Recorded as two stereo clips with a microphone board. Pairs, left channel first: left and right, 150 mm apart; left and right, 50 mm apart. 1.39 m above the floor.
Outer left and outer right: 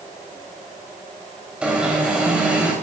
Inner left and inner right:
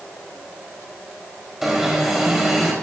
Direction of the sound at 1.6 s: 10° right (ahead or behind).